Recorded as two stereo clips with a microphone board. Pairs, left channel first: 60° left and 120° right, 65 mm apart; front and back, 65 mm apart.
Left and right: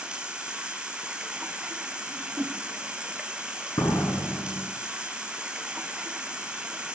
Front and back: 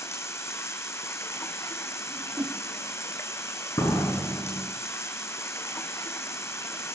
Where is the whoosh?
175° right, 4.5 m.